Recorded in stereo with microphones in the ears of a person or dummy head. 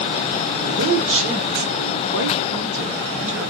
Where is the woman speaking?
65° right (ahead or behind), 1.2 m.